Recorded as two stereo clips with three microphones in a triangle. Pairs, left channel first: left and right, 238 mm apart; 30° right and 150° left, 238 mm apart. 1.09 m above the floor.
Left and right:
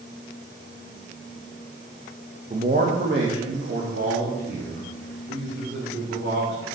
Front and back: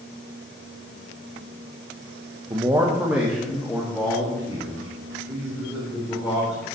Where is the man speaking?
140° right, 0.9 m; by 6.7 s 110° right, 4.5 m.